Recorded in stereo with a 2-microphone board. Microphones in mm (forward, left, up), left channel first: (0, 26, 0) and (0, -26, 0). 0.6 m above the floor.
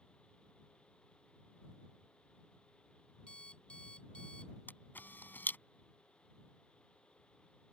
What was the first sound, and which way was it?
An alarm clock, 20° left (ahead or behind).